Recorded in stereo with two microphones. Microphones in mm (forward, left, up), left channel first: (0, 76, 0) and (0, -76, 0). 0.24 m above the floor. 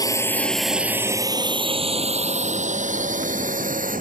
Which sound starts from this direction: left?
A drone, at 0.0 s.